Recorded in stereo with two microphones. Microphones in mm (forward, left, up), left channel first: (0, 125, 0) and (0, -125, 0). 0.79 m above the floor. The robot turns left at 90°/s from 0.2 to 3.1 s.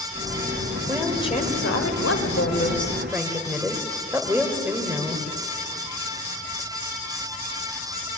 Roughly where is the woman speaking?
Behind.